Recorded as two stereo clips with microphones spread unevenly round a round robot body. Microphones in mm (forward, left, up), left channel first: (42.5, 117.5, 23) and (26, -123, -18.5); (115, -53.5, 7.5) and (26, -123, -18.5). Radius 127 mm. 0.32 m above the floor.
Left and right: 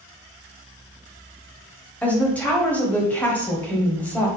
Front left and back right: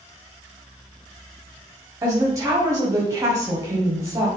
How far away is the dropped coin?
I don't hear a dropped coin.